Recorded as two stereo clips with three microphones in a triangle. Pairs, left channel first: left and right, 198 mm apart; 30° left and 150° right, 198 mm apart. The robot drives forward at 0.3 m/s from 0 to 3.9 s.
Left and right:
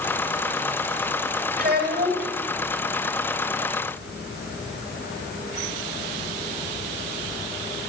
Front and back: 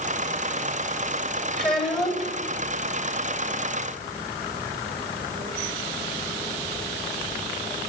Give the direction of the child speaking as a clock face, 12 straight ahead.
2 o'clock.